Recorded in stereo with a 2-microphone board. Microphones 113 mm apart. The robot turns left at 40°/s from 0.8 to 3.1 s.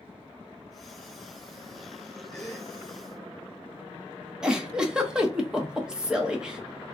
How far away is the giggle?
About 0.7 m.